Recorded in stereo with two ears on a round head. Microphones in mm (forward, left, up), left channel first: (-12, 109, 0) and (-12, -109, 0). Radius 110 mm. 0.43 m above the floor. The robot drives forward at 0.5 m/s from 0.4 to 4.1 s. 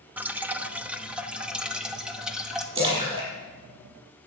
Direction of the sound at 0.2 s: 5° right (ahead or behind).